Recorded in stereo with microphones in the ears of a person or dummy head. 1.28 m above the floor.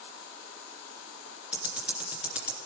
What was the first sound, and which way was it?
Ticking, 10° right (ahead or behind).